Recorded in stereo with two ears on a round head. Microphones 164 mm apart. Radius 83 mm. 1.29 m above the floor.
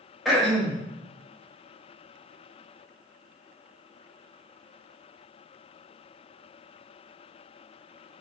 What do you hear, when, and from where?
0.2 s throat clearing: centre (ahead or behind), 0.7 m